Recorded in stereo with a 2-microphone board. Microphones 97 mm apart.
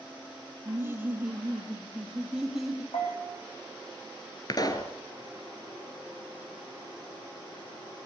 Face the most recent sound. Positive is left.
turn(degrees=40)  # may be behind; listen again after turning